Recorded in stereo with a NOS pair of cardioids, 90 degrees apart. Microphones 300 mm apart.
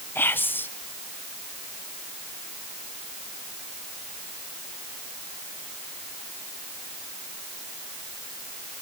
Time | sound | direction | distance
0.1 | whispering | 5° left | 1.2 m